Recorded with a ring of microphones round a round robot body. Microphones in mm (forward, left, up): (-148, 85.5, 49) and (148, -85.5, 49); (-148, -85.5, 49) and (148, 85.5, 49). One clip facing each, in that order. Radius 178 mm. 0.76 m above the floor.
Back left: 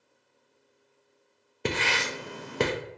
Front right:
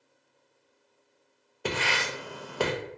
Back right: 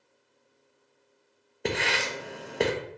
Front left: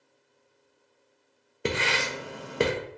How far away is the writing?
About 0.6 m.